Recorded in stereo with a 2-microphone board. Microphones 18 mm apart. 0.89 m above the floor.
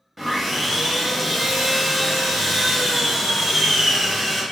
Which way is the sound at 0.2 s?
10° right (ahead or behind).